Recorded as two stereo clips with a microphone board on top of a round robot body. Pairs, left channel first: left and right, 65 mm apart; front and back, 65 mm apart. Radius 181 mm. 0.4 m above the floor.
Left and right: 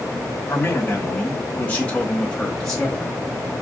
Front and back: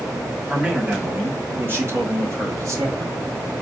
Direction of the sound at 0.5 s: 115° left.